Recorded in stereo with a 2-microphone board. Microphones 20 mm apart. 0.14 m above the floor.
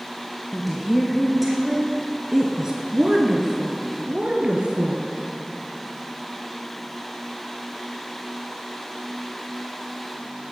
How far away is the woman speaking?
About 2 m.